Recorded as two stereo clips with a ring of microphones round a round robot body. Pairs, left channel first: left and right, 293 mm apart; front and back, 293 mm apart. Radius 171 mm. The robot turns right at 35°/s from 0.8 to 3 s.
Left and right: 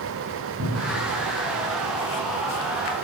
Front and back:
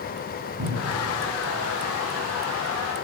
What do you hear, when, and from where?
0.6 s a cupboard door: 145° right, 6.5 m; by 1.1 s 135° right, 6.5 m